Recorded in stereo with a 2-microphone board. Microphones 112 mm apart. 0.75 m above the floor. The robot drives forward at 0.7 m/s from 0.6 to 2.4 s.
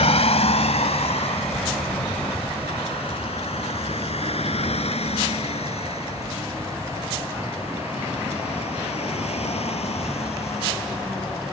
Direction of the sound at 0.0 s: 80° left.